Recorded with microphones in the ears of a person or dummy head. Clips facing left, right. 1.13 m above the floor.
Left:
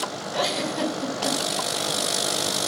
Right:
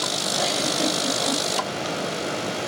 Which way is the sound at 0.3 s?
80° left.